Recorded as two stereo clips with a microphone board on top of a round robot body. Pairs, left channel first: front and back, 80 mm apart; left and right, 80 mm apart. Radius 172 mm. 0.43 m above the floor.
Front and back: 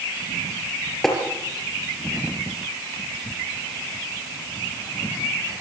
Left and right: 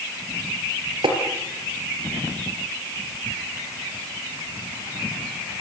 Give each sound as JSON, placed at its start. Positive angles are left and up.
{"t": 1.0, "sound": "tapping", "azimuth_deg": -85, "distance_m": 5.0}